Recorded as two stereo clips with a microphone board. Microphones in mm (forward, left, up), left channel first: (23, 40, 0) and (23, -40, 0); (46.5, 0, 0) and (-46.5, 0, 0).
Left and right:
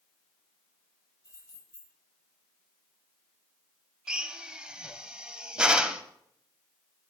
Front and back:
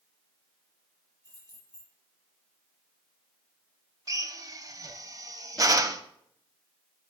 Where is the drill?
165° right, 0.6 m.